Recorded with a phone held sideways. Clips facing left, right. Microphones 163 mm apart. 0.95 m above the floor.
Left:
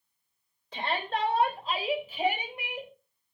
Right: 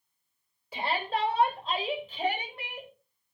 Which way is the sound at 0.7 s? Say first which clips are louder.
Right 1 dB; 10° right (ahead or behind).